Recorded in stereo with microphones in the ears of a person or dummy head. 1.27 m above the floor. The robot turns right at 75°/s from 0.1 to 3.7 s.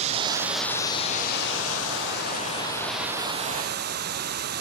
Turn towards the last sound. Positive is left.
turn(degrees=-120)